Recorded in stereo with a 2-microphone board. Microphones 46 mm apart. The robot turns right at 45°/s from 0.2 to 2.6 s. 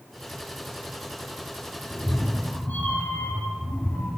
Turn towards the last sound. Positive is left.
turn(degrees=100)